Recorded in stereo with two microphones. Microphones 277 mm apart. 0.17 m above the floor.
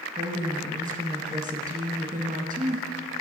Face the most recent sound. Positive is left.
turn(degrees=-30)  # may be behind; listen again after turning